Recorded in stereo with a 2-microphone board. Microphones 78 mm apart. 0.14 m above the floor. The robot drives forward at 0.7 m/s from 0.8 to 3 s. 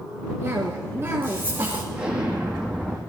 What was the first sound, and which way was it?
A cough, 35° right (ahead or behind).